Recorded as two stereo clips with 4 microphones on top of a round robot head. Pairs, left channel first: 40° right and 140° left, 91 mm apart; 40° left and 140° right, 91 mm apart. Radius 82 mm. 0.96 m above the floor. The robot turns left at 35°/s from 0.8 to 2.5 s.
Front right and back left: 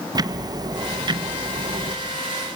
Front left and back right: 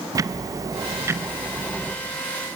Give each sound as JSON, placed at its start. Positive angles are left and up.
{"t": 0.1, "sound": "ticking", "azimuth_deg": 175, "distance_m": 0.7}